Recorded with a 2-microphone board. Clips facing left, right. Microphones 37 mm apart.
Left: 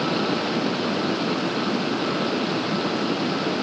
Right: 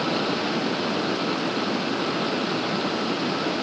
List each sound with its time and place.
Only background noise.